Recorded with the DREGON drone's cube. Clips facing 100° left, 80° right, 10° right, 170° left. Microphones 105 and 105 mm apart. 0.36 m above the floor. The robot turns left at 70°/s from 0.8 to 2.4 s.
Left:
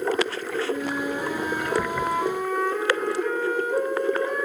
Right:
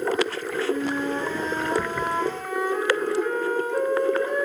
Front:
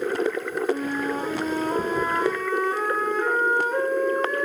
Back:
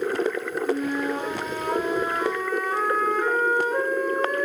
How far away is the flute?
About 3 m.